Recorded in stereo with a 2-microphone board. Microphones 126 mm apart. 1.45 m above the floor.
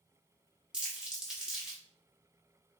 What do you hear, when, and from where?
0.7 s crumpling: 5° right (ahead or behind), 1.5 m